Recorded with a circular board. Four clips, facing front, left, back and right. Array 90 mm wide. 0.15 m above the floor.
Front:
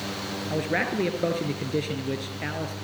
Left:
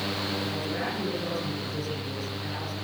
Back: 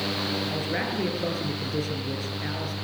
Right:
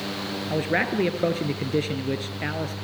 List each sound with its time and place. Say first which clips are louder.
0.5 s a man speaking: right 6 dB, front 2 dB; 70° right, 3 m